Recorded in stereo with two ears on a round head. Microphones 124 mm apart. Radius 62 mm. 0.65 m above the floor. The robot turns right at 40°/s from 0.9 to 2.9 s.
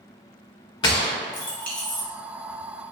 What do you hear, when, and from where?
0.8 s a gunshot: 35° left (ahead or behind), 0.7 m; by 2.0 s centre (ahead or behind), 0.7 m